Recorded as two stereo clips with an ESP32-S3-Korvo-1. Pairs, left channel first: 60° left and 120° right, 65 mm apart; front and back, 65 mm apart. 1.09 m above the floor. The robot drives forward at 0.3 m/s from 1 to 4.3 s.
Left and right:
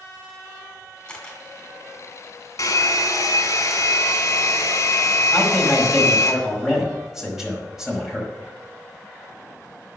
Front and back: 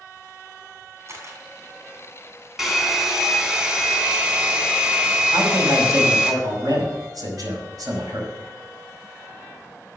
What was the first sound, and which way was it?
A camera shutter, 135° left.